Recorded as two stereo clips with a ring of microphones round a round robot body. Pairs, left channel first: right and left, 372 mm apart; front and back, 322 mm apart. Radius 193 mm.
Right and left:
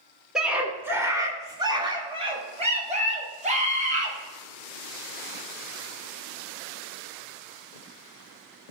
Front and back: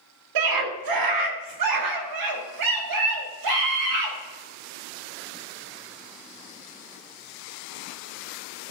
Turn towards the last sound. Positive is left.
turn(degrees=160)